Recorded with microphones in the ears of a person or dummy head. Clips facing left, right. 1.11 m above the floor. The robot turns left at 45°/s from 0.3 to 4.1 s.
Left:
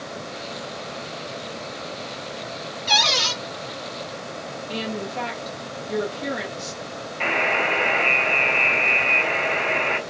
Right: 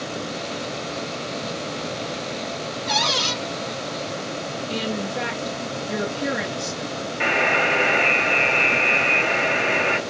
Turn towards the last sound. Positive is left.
turn(degrees=-15)  # may be behind; listen again after turning